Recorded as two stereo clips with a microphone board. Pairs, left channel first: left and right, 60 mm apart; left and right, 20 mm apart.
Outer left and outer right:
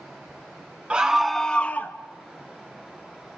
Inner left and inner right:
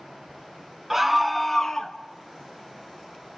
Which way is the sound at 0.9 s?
20° right (ahead or behind).